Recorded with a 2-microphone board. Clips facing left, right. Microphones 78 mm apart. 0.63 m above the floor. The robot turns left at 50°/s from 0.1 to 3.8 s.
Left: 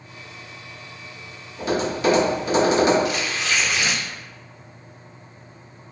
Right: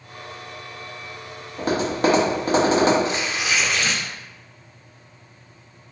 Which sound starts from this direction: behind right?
Tearing paper, at 3.0 s.